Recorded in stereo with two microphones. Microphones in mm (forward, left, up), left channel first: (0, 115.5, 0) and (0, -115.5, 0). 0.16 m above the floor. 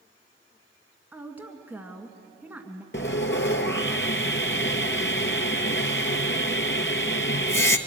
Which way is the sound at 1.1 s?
5° right (ahead or behind).